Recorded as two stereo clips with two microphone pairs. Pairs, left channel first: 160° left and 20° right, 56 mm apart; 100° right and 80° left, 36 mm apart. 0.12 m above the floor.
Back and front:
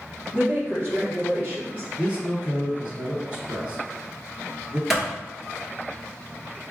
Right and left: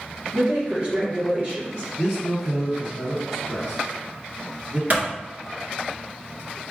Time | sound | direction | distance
0.3 | a woman speaking | 25° left | 1.7 m
2.0 | a man speaking | 15° left | 1.7 m
4.9 | a clap | 65° left | 1.4 m